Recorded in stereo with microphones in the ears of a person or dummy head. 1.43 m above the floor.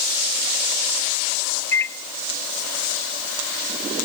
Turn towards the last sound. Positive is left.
turn(degrees=15)  # may be behind; listen again after turning